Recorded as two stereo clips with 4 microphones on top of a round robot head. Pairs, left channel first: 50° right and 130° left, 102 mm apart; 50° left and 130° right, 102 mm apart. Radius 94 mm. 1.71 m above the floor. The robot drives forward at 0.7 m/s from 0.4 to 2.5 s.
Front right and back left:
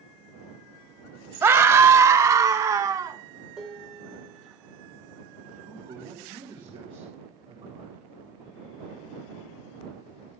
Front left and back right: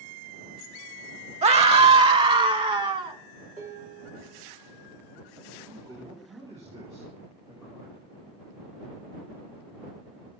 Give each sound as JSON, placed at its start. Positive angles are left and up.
{"t": 1.4, "sound": "a scream", "azimuth_deg": -160, "distance_m": 0.7}
{"t": 3.6, "sound": "dishes clattering", "azimuth_deg": -145, "distance_m": 5.0}
{"t": 5.7, "sound": "a man speaking", "azimuth_deg": 170, "distance_m": 7.5}